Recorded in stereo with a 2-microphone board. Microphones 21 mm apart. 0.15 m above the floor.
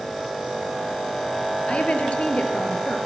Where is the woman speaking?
60° left (ahead or behind), 3.5 m.